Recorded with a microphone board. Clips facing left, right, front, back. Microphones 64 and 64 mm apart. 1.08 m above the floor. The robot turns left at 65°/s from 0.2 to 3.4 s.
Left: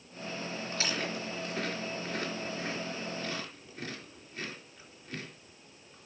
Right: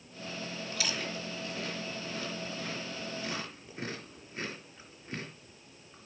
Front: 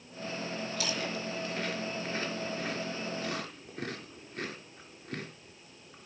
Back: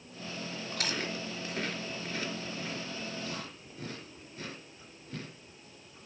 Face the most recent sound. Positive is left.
turn(degrees=-20)